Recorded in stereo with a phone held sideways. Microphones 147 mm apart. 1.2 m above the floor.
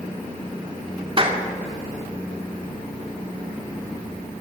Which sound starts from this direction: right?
A clap, at 1.2 s.